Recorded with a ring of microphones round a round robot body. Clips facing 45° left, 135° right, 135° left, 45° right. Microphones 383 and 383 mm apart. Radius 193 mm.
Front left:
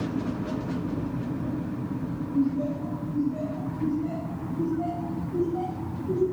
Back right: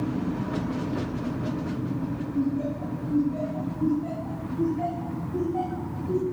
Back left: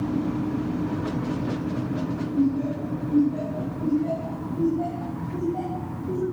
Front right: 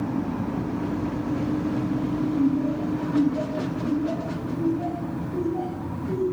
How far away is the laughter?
About 9 m.